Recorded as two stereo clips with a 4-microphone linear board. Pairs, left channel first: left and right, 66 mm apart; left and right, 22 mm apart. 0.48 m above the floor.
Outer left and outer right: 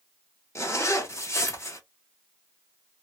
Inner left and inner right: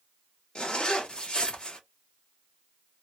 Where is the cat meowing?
No cat meowing in this recording.